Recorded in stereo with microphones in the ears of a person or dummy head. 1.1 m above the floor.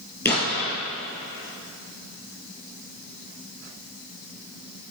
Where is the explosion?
10° left (ahead or behind), 4 m.